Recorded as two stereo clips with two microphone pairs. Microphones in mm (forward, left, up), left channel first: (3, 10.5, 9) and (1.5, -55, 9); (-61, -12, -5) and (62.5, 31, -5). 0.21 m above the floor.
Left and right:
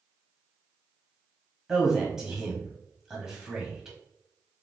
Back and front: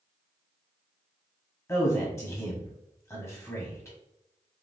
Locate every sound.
1.7 s a man speaking: 155° right, 1.0 m